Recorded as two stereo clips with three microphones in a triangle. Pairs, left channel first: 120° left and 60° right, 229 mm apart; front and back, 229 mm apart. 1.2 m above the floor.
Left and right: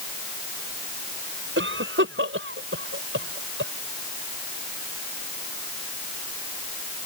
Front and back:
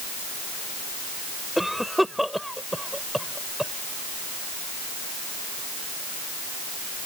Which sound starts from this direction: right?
A cough, at 1.6 s.